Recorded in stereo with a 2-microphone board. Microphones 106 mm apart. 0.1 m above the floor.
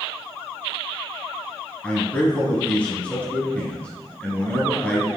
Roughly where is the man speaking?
Centre.